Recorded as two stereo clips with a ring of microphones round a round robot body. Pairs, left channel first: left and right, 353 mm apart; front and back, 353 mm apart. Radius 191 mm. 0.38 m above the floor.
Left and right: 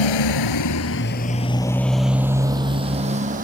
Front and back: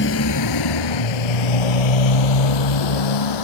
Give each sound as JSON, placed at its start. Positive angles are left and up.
{"t": 0.0, "sound": "a motorcycle", "azimuth_deg": 65}